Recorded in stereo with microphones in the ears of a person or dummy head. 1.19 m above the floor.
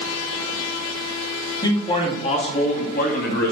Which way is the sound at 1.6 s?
15° left (ahead or behind).